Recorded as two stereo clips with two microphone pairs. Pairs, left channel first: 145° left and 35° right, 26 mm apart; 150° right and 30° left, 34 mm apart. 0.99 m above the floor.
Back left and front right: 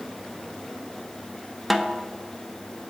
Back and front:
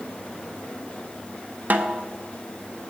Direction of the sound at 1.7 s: 55° left.